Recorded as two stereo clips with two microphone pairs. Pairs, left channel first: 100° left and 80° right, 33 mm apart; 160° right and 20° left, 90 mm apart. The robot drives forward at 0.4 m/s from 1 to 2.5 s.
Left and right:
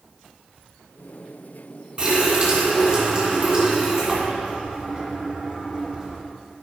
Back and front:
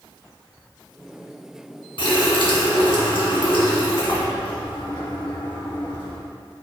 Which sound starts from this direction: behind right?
A running tap, at 2.0 s.